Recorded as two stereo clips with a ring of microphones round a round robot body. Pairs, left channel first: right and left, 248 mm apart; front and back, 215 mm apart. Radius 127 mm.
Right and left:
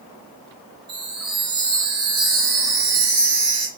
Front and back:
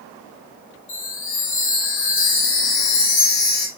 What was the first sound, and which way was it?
A chime, 15° left.